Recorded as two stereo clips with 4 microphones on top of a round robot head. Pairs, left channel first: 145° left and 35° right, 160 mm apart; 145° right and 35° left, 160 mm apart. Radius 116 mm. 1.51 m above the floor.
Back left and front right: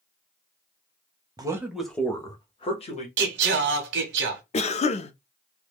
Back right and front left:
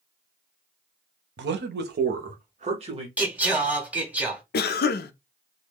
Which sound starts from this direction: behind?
A cough, at 4.5 s.